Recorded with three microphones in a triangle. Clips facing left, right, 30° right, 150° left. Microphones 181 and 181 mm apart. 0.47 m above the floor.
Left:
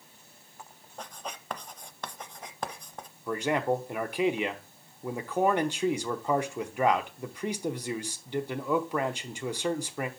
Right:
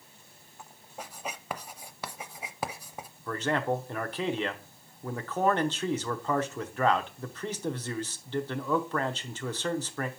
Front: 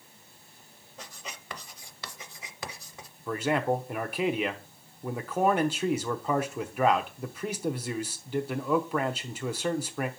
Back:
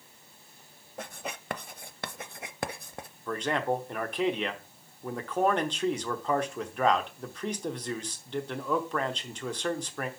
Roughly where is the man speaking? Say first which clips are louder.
Left 2 dB, front 2 dB; ahead left.